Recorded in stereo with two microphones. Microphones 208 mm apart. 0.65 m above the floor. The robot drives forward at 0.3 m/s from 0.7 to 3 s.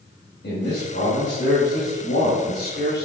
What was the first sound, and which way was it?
A man speaking, 60° left (ahead or behind).